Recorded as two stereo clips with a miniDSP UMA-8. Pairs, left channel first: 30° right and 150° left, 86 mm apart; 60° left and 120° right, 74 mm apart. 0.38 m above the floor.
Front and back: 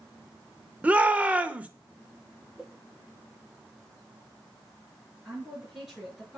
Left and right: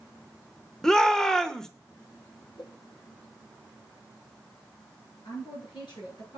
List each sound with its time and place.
0.8 s a shout: 125° left, 0.8 m
2.6 s a whoosh: 70° left, 2.5 m
5.2 s a woman speaking: 65° left, 7 m